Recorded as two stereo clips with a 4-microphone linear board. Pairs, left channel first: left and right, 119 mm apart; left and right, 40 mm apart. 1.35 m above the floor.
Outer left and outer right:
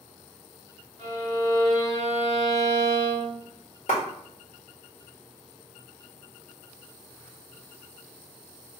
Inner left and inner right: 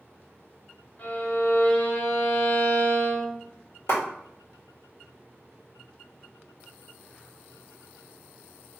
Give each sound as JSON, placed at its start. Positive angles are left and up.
{"t": 1.0, "sound": "a violin", "side_deg": 35, "distance_m": 1.8}
{"t": 3.9, "sound": "a clap", "side_deg": 75, "distance_m": 1.7}